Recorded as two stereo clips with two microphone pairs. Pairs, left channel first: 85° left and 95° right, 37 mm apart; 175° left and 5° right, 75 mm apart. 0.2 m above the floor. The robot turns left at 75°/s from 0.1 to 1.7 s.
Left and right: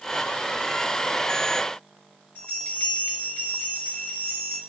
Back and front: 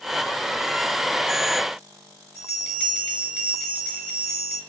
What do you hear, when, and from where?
2.4 s a bell: 105° left, 2 m